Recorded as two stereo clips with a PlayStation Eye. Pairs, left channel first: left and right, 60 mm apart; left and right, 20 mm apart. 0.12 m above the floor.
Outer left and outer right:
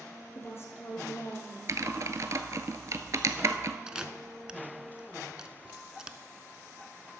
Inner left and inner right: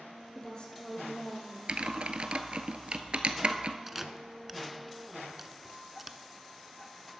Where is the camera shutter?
10° right (ahead or behind), 0.5 m.